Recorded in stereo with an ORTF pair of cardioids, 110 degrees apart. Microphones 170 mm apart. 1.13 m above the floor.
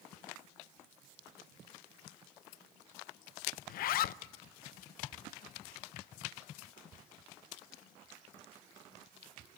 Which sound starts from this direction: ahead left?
A zipper, at 3.7 s.